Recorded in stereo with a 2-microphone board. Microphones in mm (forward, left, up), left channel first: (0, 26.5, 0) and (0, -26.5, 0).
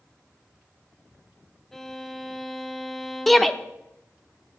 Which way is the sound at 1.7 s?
5° left (ahead or behind).